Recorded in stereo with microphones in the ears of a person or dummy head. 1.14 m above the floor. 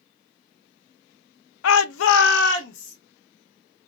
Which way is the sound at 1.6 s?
85° left.